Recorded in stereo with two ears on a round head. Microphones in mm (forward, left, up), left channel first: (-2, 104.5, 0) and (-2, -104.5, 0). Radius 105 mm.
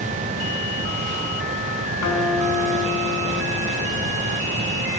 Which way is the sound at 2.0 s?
80° left.